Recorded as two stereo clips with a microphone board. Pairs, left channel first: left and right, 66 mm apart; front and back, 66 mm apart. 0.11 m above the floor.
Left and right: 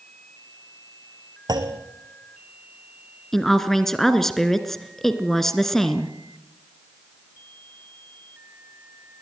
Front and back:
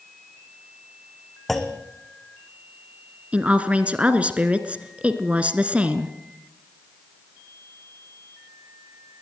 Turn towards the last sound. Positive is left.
turn(degrees=165)